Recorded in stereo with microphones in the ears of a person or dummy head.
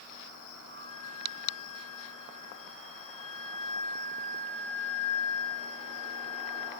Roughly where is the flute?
Right.